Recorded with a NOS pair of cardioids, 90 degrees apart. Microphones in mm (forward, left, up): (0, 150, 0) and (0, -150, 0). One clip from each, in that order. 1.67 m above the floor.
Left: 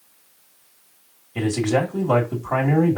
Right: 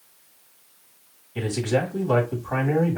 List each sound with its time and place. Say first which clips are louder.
1.4 s a man speaking: left 3 dB; 30° left, 2.0 m